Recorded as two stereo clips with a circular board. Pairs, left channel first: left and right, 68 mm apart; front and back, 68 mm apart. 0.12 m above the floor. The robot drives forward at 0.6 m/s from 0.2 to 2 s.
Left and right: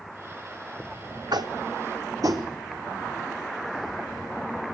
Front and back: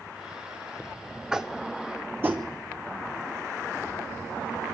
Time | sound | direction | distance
1.3 | tapping | 100° right | 1.0 m